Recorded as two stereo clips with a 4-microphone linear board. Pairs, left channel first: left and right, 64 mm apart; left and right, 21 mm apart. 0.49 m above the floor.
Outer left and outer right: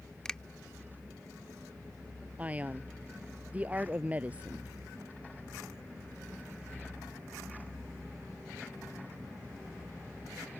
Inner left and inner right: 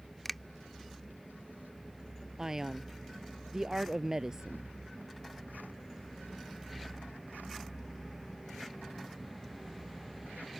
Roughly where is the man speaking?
Right.